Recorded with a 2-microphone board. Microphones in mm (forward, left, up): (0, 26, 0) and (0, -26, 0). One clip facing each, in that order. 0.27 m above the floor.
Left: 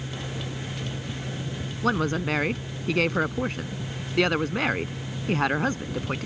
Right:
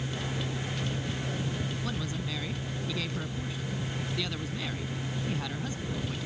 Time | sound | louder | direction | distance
1.8 | a woman speaking | left 10 dB | 65° left (ahead or behind) | ?